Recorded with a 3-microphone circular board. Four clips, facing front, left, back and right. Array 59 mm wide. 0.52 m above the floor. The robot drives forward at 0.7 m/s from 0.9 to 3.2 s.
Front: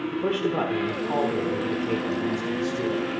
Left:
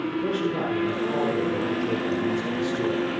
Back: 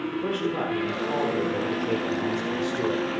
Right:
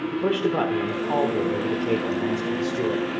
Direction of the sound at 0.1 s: 75° right.